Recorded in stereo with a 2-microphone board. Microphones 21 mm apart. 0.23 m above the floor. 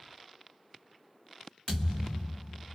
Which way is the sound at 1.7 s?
25° left (ahead or behind).